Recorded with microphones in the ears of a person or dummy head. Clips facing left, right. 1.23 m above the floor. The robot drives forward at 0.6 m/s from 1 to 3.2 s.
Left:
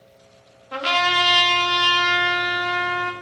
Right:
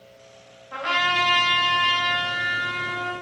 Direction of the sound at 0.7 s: 50° left (ahead or behind).